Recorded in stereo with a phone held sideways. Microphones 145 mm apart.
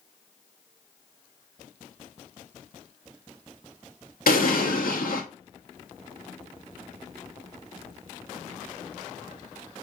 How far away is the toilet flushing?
I don't hear a toilet flushing.